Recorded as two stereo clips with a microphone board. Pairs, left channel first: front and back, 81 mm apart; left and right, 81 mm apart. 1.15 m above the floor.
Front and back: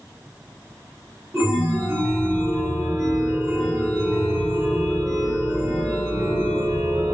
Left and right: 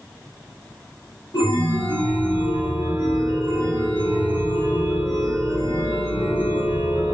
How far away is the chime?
About 1.3 m.